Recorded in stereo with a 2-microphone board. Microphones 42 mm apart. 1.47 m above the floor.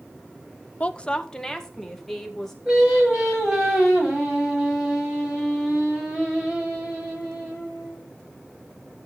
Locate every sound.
0.8 s a woman speaking: 30° left (ahead or behind), 0.6 m; by 2.5 s 5° left (ahead or behind), 2.5 m
2.6 s singing: 15° right (ahead or behind), 5 m